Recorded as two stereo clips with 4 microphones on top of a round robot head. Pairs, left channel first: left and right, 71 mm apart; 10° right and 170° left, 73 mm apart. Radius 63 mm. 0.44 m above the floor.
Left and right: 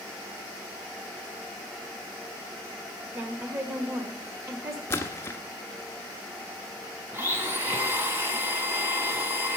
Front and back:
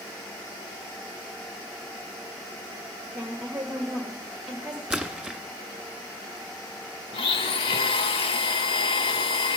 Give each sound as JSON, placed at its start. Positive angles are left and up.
{"t": 3.1, "sound": "a woman speaking", "azimuth_deg": -115, "distance_m": 1.3}
{"t": 4.9, "sound": "a splash", "azimuth_deg": 100, "distance_m": 1.5}
{"t": 7.1, "sound": "a blender", "azimuth_deg": -20, "distance_m": 0.8}